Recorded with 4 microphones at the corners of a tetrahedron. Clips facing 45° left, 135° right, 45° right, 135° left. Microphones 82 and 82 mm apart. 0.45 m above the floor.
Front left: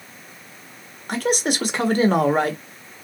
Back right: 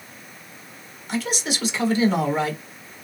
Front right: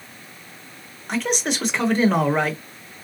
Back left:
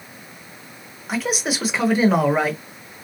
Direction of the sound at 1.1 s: 50° left.